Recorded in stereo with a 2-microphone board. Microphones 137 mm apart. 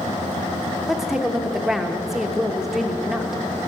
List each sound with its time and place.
0.9 s a woman speaking: centre (ahead or behind), 0.9 m